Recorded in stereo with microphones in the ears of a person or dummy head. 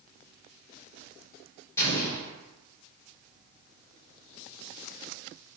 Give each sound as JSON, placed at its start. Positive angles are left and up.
{"t": 1.8, "sound": "an explosion", "side_deg": 15, "distance_m": 1.1}